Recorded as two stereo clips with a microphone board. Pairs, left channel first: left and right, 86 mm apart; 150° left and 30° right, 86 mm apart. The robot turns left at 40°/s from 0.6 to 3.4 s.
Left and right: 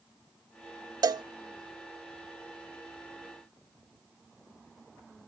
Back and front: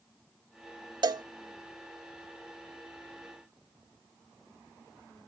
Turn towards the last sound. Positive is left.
turn(degrees=-150)